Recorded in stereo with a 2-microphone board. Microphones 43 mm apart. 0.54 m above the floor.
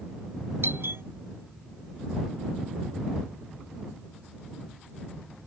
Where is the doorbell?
75° right (ahead or behind).